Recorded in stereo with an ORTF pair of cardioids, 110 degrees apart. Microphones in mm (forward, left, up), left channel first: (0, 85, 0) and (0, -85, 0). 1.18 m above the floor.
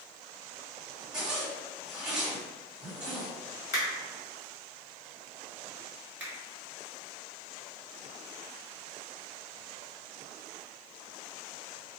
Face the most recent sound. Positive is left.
turn(degrees=-10)